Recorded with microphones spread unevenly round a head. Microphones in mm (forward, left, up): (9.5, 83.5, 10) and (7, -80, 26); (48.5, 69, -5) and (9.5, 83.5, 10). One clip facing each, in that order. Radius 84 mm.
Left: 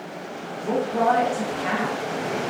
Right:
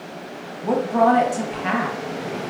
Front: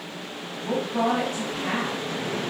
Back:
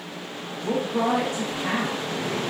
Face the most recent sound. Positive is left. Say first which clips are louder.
# right 4 dB, even
turn(degrees=-100)